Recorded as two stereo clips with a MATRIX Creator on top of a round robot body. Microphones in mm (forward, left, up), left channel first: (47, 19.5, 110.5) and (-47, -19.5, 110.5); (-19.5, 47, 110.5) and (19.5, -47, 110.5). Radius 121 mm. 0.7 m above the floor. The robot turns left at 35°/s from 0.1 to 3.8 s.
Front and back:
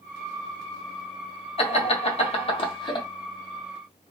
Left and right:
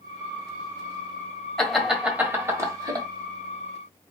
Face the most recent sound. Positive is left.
turn(degrees=-50)